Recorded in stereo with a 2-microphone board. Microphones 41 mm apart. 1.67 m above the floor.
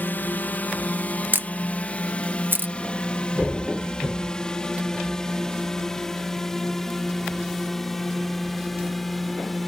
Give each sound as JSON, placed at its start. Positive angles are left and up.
{"t": 0.0, "sound": "a drone", "side_deg": 50}
{"t": 1.3, "sound": "a camera shutter", "side_deg": -50}